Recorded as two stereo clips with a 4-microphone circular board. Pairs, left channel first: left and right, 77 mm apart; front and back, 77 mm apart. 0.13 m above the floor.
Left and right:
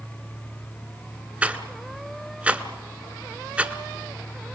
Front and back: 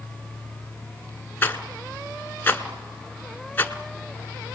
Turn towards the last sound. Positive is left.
turn(degrees=-35)